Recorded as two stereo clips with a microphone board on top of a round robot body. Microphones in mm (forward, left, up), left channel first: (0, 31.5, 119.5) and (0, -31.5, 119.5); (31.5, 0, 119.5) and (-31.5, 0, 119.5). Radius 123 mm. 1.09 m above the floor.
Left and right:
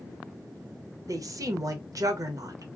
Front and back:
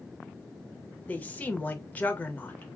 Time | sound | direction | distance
1.1 | a woman speaking | 65° right | 0.9 m